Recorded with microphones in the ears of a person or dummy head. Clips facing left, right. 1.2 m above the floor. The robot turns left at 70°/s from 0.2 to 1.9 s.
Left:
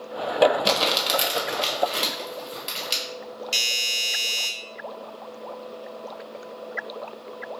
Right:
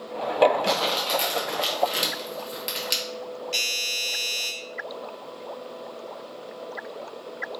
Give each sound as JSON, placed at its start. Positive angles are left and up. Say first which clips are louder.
{"t": 0.7, "sound": "crumpling", "louder": "left 1 dB", "side_deg": 50, "distance_m": 0.9}
{"t": 3.5, "sound": "a doorbell", "louder": "right 1 dB", "side_deg": 40, "distance_m": 0.8}